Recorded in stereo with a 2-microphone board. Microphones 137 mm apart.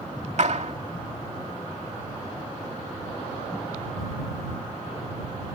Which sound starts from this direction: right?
A clap, at 0.4 s.